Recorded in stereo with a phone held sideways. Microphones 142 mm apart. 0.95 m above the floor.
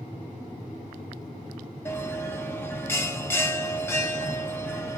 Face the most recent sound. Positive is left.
turn(degrees=15)  # may be behind; listen again after turning